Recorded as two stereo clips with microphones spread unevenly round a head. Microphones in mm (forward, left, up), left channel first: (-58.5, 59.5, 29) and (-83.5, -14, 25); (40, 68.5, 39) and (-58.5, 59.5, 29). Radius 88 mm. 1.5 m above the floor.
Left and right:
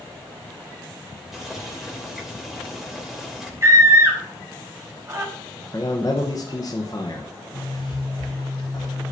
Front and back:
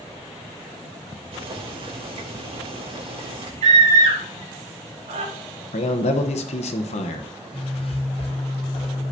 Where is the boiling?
165° left, 3 m.